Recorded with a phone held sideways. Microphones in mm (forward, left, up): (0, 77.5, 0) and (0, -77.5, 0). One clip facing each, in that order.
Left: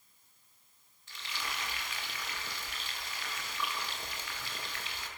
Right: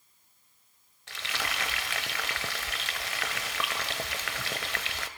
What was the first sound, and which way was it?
Frying, 65° right (ahead or behind).